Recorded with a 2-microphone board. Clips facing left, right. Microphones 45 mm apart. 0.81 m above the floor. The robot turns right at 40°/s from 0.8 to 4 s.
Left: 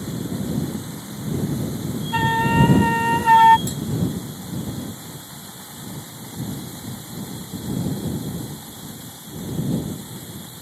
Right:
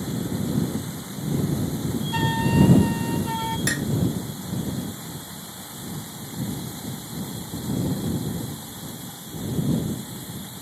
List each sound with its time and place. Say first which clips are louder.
2.1 s a flute: left 4 dB; 20° left; by 3.6 s 80° left
3.7 s dishes clattering: right 4 dB; 70° right (ahead or behind); by 3.9 s 75° right (ahead or behind)